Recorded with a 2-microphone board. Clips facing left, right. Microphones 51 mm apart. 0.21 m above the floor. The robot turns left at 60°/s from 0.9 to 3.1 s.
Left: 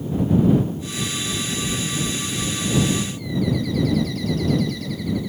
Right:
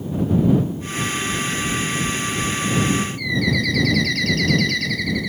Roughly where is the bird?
Right.